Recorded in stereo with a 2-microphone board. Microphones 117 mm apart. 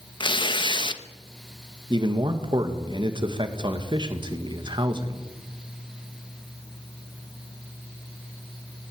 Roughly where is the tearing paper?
Left.